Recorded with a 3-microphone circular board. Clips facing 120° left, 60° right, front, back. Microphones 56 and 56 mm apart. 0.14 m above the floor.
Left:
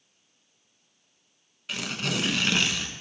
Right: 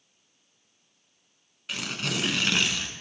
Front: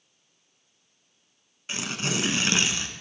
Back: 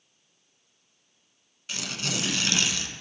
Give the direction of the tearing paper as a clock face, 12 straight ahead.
11 o'clock.